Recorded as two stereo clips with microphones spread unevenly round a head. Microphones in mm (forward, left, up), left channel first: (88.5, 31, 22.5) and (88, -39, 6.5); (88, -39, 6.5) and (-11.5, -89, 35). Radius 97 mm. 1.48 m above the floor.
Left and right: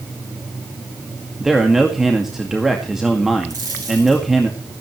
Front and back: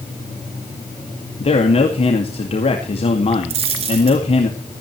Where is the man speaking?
5° right, 2 m.